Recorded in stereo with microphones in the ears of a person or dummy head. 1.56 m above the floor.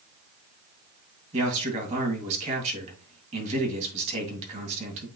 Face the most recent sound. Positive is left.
turn(degrees=-40)  # may be behind; listen again after turning